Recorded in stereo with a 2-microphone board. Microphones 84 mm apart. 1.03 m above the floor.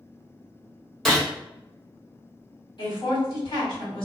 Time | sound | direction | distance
1.1 | a gunshot | 5° left (ahead or behind) | 0.7 m
2.8 | a woman speaking | 65° left (ahead or behind) | 1.5 m